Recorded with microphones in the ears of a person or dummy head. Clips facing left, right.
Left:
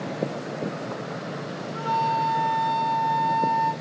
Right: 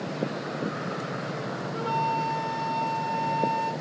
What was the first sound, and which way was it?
A flute, centre (ahead or behind).